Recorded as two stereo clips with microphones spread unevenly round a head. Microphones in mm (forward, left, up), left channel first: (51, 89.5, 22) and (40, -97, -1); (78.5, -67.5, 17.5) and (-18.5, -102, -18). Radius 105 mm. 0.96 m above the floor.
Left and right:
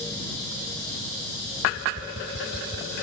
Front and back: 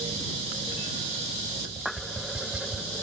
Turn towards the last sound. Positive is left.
turn(degrees=-75)